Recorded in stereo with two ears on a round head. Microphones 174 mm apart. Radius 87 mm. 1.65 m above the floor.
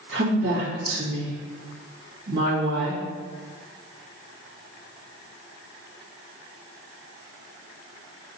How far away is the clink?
I don't hear a clink.